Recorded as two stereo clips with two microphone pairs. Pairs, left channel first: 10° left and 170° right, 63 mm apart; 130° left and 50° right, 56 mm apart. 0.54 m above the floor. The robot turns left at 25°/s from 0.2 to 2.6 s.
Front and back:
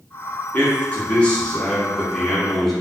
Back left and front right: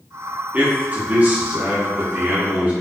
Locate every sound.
0.5 s a man speaking: 30° right, 0.7 m; by 2.7 s 85° right, 0.7 m